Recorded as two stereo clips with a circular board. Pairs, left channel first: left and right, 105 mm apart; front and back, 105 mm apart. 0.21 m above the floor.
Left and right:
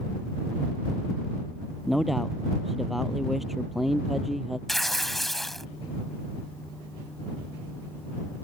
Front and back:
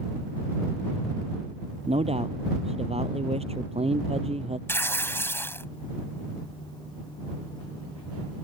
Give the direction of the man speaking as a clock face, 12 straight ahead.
6 o'clock.